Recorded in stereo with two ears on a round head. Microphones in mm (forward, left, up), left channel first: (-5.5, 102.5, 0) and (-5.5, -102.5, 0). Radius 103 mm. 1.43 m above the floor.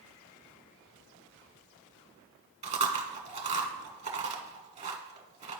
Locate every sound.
2.6 s chewing: 30° right (ahead or behind), 1.3 m